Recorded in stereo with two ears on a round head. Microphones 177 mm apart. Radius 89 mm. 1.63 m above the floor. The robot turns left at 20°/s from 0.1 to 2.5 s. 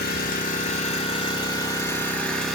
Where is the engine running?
50° left, 2.5 m; by 2.6 s straight ahead, 2.5 m.